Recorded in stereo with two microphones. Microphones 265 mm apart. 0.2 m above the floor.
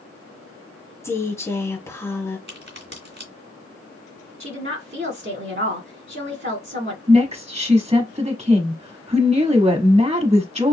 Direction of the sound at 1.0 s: 10° left (ahead or behind).